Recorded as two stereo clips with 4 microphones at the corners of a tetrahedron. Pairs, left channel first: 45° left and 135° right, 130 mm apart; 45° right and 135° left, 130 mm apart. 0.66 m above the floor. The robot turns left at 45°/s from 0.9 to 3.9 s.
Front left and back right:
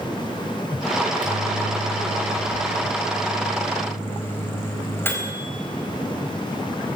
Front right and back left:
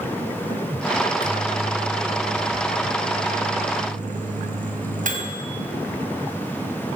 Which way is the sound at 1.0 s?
110° right.